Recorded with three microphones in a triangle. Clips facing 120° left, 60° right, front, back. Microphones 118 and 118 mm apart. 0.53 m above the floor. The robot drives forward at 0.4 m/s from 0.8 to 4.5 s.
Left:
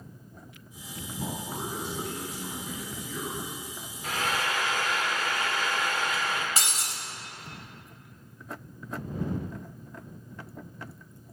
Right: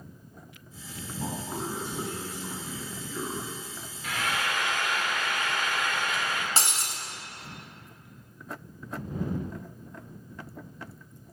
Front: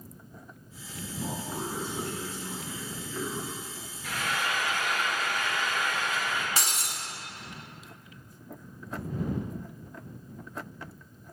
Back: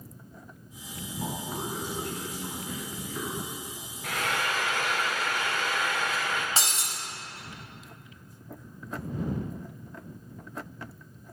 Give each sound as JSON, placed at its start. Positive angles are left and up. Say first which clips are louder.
{"t": 1.2, "sound": "a man speaking", "louder": "right 1 dB, even", "azimuth_deg": -145, "distance_m": 3.5}
{"t": 4.0, "sound": "frying", "louder": "left 1 dB, back 2 dB", "azimuth_deg": 175, "distance_m": 0.8}
{"t": 6.6, "sound": "breaking glass", "louder": "right 2 dB, back 1 dB", "azimuth_deg": -120, "distance_m": 1.1}